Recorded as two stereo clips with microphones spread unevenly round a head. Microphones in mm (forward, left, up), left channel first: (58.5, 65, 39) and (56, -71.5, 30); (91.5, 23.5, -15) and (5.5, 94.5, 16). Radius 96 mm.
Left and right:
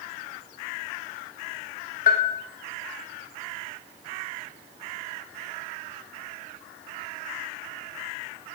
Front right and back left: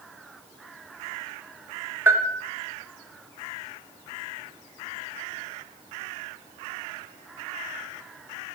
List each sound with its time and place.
2.1 s a bell: 70° left, 1.2 m